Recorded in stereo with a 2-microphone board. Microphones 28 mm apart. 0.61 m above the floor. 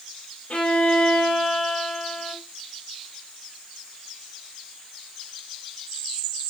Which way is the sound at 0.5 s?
50° left (ahead or behind).